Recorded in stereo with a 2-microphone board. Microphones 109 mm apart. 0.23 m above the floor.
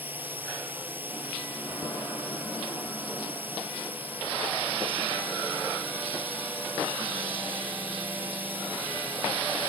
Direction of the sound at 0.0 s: 15° right (ahead or behind).